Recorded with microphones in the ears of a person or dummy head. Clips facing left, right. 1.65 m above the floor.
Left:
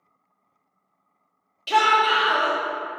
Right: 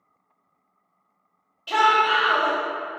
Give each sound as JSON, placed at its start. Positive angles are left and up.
{"t": 1.7, "sound": "a shout", "side_deg": 25, "distance_m": 0.8}